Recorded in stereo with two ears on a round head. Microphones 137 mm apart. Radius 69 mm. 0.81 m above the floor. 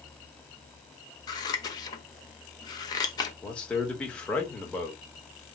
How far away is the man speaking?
About 1.1 m.